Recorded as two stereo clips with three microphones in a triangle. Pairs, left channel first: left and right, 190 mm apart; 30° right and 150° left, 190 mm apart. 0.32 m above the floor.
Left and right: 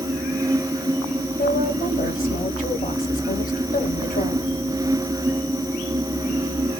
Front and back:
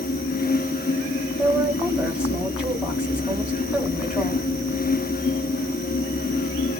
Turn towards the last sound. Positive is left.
turn(degrees=65)